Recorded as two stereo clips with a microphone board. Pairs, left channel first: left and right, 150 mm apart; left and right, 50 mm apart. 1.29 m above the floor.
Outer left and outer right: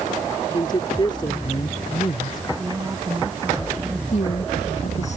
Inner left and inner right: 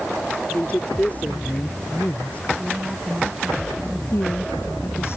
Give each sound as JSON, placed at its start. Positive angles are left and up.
{"t": 0.5, "sound": "a woman speaking", "side_deg": 35}
{"t": 2.6, "sound": "a woman speaking", "side_deg": -15}
{"t": 4.1, "sound": "a woman speaking", "side_deg": 55}